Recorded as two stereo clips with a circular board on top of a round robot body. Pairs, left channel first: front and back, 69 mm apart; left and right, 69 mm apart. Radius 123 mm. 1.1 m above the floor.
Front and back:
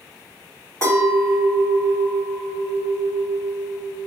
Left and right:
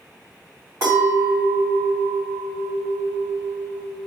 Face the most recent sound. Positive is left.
turn(degrees=-45)